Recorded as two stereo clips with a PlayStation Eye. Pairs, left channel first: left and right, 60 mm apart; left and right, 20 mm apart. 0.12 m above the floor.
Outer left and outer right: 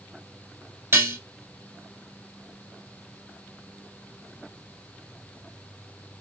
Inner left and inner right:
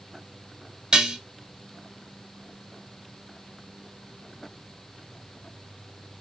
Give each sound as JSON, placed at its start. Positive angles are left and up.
{"t": 0.9, "sound": "dishes clattering", "side_deg": -45, "distance_m": 1.3}